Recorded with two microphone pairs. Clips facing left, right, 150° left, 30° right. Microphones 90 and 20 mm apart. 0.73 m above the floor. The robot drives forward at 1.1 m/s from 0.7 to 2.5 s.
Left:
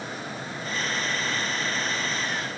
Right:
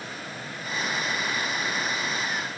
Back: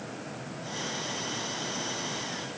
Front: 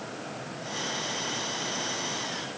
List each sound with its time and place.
Only background noise.